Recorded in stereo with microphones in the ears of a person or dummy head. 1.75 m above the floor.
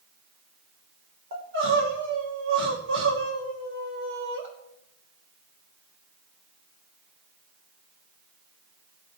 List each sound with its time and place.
1.3 s crying: 65° right (ahead or behind), 3 m